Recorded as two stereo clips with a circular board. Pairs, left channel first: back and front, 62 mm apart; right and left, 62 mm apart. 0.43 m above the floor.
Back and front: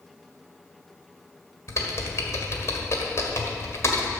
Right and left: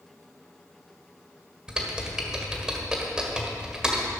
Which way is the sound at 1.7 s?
165° left.